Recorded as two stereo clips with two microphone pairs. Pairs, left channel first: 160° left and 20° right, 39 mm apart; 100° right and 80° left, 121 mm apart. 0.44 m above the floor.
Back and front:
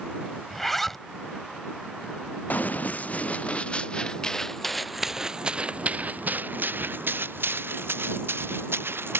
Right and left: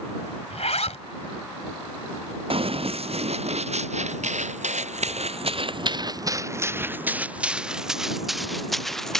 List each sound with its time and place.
0.5 s a zipper: 120° right
2.5 s running footsteps: 115° left; by 9.2 s 15° right